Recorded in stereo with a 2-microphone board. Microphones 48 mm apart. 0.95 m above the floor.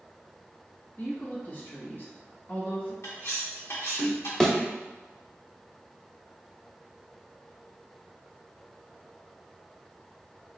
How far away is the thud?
About 0.7 m.